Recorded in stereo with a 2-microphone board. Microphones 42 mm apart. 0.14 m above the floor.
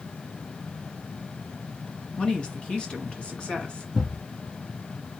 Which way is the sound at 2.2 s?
25° left (ahead or behind).